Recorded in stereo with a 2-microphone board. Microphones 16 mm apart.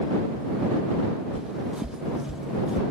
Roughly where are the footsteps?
Right.